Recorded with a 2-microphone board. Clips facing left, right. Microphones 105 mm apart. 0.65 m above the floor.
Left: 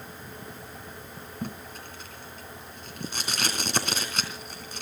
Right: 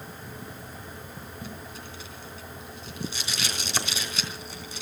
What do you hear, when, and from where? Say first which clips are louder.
1.4 s tape being pulled: left 6 dB; 55° left (ahead or behind), 3.5 m